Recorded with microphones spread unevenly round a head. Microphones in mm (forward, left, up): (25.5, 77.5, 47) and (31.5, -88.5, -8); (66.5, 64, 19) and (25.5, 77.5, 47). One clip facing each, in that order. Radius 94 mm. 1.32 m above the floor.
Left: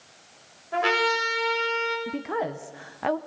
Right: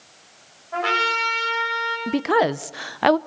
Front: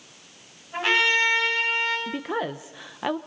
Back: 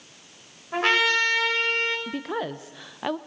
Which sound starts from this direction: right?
A woman speaking, at 2.1 s.